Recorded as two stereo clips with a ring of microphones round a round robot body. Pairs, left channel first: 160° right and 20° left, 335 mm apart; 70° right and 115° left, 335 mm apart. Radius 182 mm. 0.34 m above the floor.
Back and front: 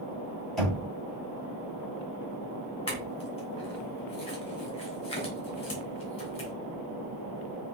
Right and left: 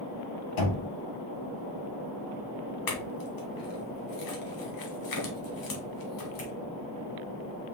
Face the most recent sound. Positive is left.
turn(degrees=-85)